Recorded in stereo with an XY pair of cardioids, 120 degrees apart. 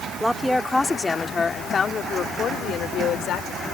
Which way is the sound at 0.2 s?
5° left.